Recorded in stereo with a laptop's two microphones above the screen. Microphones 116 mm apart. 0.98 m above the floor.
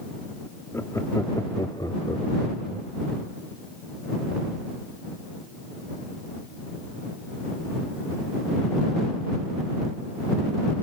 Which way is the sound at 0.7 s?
25° left (ahead or behind).